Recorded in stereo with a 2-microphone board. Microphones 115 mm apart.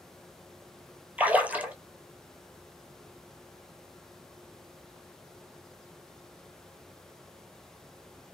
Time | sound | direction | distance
1.2 | a splash | 15° right (ahead or behind) | 0.5 m